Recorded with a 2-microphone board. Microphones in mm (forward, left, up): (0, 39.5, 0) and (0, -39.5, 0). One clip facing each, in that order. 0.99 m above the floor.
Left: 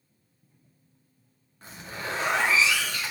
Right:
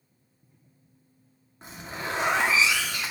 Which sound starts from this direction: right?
A zipper, at 1.6 s.